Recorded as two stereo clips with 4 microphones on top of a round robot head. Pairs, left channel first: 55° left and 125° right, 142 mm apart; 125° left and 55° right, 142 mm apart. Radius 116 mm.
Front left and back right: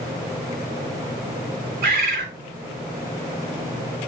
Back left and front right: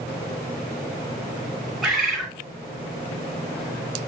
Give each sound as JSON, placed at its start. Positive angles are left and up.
{"t": 1.8, "sound": "a bird", "azimuth_deg": -140, "distance_m": 1.0}